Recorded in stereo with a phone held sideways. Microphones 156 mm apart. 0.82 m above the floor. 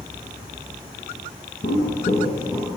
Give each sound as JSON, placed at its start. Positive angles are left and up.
{"t": 1.6, "sound": "footsteps", "side_deg": 65, "distance_m": 1.8}